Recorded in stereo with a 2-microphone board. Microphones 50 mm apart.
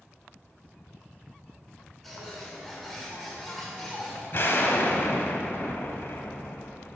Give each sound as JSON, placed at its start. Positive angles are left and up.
{"t": 2.0, "sound": "a bird", "side_deg": 5, "distance_m": 1.6}
{"t": 4.3, "sound": "an explosion", "side_deg": 55, "distance_m": 0.9}